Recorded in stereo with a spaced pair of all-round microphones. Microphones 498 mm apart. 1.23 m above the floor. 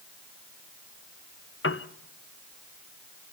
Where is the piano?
25° left (ahead or behind), 0.6 m.